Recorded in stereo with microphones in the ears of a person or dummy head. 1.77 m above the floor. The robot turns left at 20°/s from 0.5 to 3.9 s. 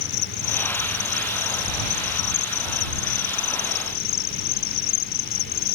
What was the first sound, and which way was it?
An insect, 125° left.